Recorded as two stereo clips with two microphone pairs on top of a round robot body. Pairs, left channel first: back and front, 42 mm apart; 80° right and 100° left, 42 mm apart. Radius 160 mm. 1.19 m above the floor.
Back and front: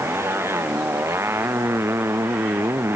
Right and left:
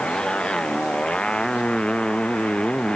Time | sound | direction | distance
0.0 | a motorcycle | 10° right | ?